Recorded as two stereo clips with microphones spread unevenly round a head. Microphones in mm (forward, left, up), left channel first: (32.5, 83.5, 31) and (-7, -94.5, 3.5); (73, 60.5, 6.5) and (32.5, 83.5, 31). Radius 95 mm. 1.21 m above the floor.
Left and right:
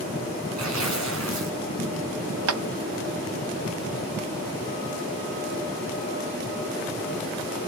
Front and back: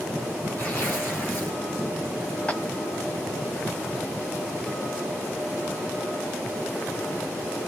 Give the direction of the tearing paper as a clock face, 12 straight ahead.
4 o'clock.